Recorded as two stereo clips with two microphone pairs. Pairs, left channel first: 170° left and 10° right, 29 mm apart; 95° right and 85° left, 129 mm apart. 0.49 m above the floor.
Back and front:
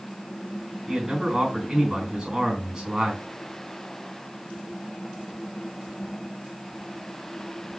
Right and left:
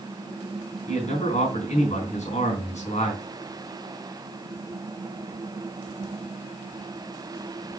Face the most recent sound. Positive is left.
turn(degrees=-75)